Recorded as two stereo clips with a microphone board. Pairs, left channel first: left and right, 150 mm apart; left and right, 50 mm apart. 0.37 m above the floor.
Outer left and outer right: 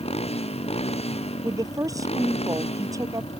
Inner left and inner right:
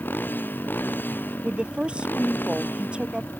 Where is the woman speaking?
20° right (ahead or behind).